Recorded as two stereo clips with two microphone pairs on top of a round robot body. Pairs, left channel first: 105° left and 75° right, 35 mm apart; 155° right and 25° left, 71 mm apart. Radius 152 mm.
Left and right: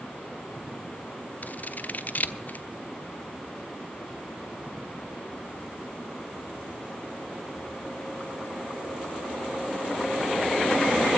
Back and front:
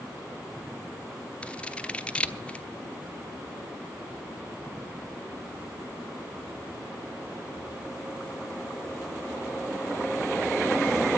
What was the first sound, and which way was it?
Scissors, 135° left.